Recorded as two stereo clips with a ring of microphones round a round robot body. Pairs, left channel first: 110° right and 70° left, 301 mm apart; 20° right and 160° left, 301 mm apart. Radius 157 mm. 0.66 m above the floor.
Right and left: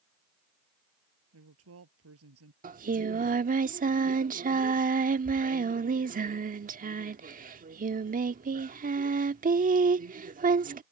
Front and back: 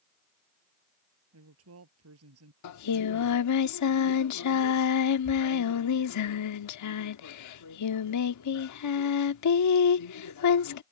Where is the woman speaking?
115° left.